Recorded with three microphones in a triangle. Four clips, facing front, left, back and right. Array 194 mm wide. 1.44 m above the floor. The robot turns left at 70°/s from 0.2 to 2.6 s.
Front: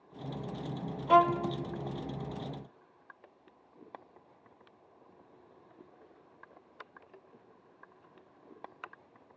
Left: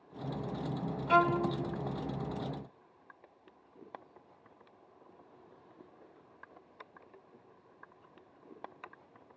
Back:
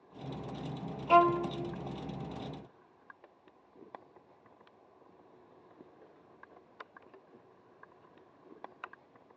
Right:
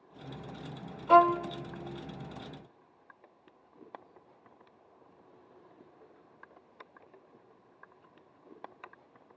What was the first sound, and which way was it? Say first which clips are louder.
A violin: right 6 dB, even; 75° right.